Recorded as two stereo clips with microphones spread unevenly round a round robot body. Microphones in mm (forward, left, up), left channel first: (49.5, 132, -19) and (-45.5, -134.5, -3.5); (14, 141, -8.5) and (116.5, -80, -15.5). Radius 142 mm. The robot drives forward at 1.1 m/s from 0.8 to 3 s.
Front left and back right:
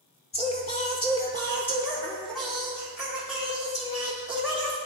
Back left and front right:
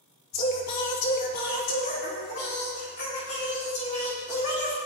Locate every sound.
0.3 s singing: 135° left, 1.8 m; by 4.8 s 165° left, 4 m